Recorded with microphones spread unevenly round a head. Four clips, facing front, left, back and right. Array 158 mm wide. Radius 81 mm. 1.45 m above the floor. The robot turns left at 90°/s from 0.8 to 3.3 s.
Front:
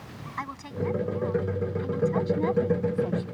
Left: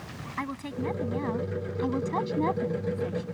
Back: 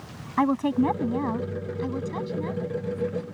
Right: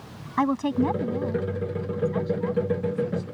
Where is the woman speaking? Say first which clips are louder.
Right 11 dB, back 12 dB; 140° right; by 3.2 s straight ahead.